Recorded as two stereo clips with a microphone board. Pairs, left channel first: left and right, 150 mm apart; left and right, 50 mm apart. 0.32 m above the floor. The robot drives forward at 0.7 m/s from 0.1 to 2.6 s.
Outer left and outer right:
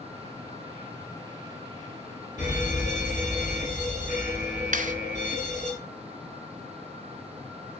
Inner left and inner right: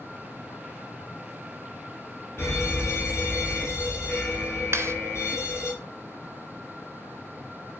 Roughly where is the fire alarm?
Left.